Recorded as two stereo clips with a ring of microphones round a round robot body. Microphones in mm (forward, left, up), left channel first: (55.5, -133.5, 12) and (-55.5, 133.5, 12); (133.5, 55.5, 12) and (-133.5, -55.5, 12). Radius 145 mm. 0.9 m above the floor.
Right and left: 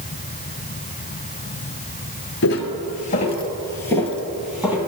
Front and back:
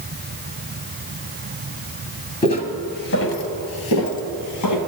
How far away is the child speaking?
I don't hear a child speaking.